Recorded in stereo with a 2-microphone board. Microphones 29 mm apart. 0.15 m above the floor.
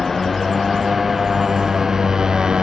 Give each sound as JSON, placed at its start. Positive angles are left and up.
{"t": 0.0, "sound": "a motorcycle", "side_deg": 5}